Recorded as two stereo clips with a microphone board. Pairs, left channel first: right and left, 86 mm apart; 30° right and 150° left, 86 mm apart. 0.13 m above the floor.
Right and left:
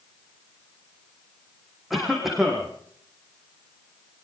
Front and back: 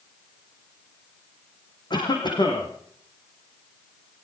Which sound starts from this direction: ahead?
A cough, at 1.9 s.